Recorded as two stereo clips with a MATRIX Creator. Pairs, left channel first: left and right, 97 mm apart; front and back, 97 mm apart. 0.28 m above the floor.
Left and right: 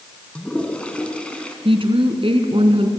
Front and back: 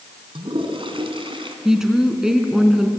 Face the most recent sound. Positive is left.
turn(degrees=-95)